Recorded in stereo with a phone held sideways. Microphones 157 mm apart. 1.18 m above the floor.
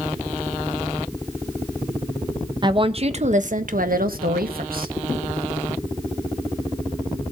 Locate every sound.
2.6 s a woman speaking: 30° right (ahead or behind), 1.2 m; by 4.9 s 80° right, 1.5 m